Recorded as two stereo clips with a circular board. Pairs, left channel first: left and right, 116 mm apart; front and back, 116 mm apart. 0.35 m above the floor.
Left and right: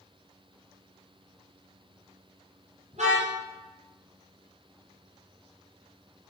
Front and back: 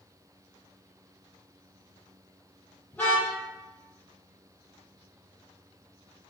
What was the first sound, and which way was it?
A car horn, 75° right.